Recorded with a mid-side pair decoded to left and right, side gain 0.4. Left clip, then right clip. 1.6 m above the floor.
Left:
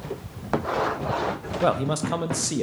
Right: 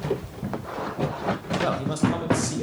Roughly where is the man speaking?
Ahead left.